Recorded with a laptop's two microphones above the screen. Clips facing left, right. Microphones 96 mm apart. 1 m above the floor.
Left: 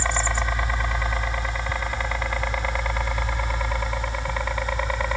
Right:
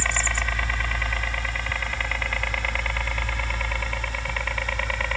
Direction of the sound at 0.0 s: 20° left (ahead or behind).